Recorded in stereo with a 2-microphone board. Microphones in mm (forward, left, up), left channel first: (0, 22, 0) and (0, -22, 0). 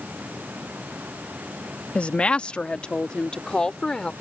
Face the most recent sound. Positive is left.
turn(degrees=15)  # may be behind; listen again after turning